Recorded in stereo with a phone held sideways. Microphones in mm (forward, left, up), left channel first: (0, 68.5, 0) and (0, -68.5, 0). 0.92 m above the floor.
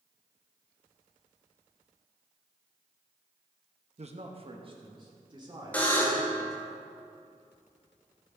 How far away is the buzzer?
About 2.5 m.